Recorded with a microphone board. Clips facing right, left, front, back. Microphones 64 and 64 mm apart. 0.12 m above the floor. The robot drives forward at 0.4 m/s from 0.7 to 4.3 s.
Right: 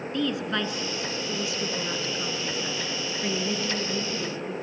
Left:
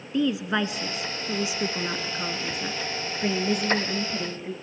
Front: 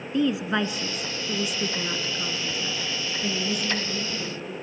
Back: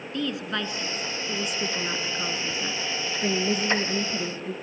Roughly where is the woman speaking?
Ahead left.